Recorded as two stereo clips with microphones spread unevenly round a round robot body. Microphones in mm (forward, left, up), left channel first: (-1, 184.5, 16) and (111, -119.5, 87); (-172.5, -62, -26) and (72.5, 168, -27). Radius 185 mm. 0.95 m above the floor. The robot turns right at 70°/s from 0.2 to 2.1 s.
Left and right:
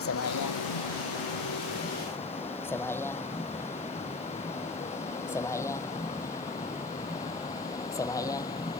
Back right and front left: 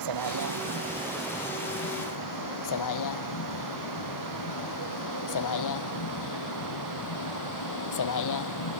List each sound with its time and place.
0.0 s a vehicle: 60° left; by 8.8 s 170° right